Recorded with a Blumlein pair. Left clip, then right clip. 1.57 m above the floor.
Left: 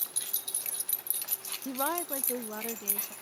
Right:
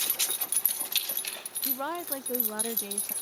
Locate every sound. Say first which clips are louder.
1.6 s a woman speaking: left 1 dB; 15° left; by 3.1 s 10° right